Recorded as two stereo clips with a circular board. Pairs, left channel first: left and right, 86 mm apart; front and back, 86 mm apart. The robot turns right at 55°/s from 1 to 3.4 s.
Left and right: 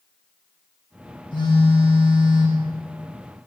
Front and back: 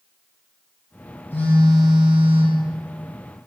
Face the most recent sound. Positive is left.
turn(degrees=175)